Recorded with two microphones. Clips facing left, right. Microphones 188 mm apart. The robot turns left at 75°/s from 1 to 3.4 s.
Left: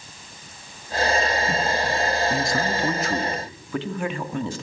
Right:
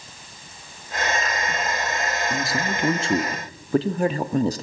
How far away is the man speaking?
About 1.3 m.